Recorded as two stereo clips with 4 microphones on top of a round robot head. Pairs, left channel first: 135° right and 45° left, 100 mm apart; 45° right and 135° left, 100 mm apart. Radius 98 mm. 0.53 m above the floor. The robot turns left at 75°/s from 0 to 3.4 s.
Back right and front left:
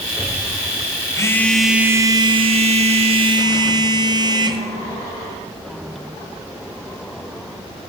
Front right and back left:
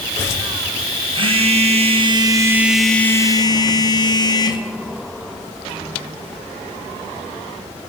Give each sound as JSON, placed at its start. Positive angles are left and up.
{"t": 1.1, "sound": "a phone buzzing", "azimuth_deg": 170, "distance_m": 2.0}